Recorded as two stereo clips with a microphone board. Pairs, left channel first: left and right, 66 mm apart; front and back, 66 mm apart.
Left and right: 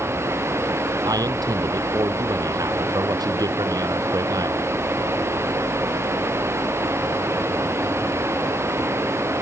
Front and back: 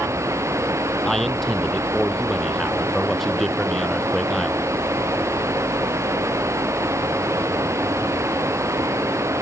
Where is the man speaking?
85° right.